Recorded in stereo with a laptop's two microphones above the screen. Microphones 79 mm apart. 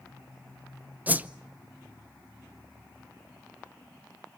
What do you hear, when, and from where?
1.1 s a whoosh: 20° right (ahead or behind), 0.7 m